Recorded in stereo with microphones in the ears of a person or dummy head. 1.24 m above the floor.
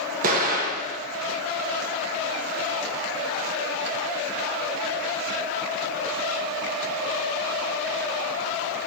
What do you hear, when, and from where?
0.2 s an explosion: 45° right (ahead or behind), 1.6 m